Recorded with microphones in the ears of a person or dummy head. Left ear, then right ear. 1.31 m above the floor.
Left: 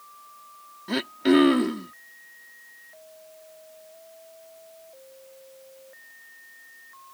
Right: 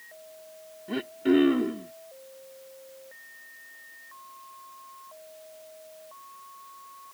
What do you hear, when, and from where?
0.9 s throat clearing: 65° left (ahead or behind)